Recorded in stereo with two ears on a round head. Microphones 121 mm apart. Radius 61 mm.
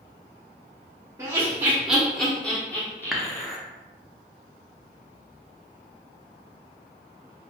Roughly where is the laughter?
Right.